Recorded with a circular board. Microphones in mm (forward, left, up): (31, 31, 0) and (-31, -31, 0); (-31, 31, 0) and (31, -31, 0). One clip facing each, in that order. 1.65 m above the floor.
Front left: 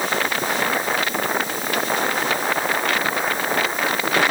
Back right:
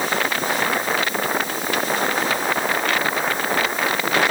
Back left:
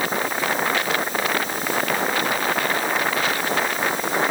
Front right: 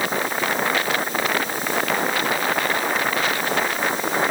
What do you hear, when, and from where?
Only background noise.